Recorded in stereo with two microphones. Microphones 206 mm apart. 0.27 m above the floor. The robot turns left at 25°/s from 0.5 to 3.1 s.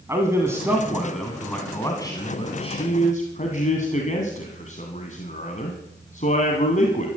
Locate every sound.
0.1 s a man speaking: 165° right, 2 m; by 7.1 s 130° left, 2 m